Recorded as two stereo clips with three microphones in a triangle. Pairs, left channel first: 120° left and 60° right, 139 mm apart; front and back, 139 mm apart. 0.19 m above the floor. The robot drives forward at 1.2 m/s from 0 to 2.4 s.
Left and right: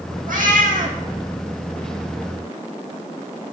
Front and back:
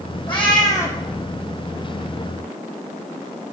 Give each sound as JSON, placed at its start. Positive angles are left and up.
{"t": 0.3, "sound": "a cat meowing", "azimuth_deg": -50, "distance_m": 2.0}